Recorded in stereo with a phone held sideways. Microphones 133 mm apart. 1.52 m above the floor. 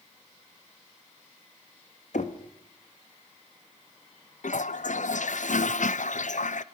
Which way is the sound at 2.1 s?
65° left (ahead or behind).